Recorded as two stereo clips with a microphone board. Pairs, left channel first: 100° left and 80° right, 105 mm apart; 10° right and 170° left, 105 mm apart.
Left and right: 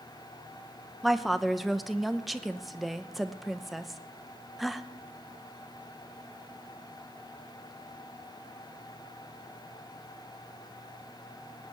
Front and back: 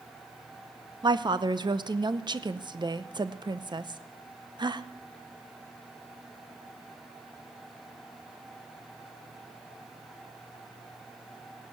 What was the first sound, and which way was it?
A woman speaking, 170° right.